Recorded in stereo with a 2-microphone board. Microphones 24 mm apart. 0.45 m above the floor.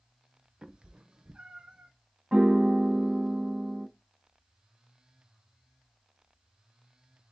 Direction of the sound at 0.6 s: 40° right (ahead or behind).